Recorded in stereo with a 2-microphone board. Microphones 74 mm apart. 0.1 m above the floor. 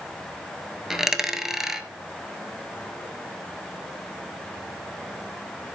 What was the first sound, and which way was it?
A dropped coin, 5° right (ahead or behind).